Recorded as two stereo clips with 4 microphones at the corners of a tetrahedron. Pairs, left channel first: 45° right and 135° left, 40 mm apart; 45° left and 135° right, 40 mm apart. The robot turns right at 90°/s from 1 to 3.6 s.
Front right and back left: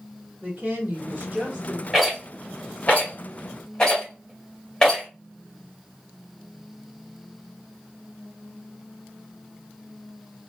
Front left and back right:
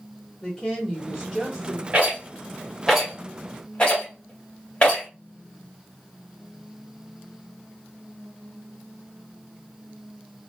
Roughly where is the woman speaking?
Left.